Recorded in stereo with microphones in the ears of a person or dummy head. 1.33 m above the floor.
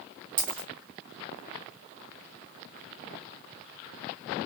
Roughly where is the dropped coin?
Right.